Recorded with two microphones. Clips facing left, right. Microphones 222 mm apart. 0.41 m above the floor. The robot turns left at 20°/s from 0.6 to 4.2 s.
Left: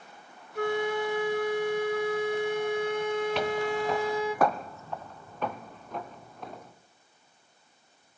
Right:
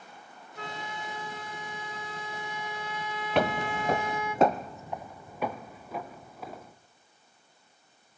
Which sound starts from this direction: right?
Footsteps, at 3.4 s.